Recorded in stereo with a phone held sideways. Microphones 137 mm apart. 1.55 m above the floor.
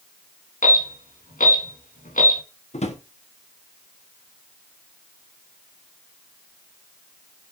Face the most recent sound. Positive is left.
turn(degrees=55)  # may be behind; listen again after turning